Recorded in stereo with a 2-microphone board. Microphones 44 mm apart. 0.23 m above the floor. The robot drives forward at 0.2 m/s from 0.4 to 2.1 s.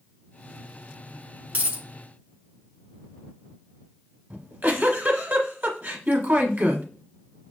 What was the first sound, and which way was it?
A dropped coin, 35° right (ahead or behind).